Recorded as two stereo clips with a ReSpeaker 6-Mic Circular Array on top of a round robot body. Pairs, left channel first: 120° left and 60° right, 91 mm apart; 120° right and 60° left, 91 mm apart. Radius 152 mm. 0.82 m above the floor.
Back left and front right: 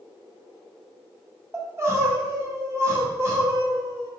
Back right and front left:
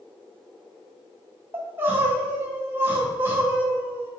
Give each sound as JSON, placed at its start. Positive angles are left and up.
{"t": 1.5, "sound": "crying", "azimuth_deg": -5, "distance_m": 1.8}